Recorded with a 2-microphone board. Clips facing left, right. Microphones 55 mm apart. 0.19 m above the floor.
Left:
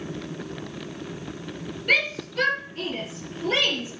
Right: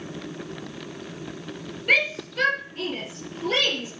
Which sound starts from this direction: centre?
A shout, at 1.9 s.